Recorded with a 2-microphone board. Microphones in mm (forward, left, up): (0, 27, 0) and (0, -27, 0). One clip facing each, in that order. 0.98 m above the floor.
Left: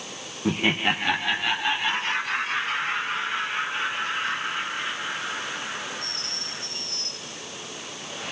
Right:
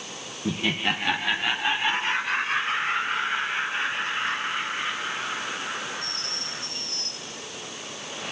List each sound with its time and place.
0.5 s laughter: 50° left (ahead or behind), 0.8 m; by 6.6 s 35° right (ahead or behind), 10 m